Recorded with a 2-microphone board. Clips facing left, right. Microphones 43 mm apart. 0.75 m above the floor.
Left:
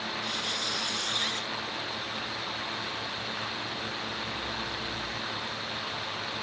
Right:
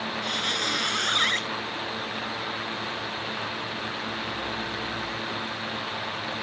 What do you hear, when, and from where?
0.2 s a squeak: 60° right (ahead or behind)